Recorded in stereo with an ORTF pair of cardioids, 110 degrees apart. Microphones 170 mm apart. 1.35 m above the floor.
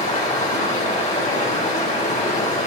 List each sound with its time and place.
0.0 s running water: 45° left, 5 m